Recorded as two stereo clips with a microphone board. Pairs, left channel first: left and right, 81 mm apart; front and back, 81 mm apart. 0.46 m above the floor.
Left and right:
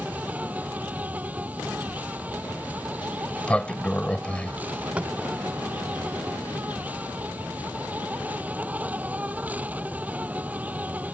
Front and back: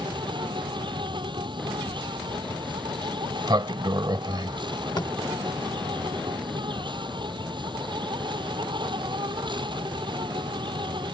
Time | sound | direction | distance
0.0 | an insect | 160° right | ?
3.0 | a sliding door | 165° left | ?
5.0 | tapping | 20° right | ?